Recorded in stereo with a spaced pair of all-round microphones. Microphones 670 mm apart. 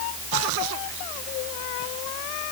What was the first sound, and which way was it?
Only background noise.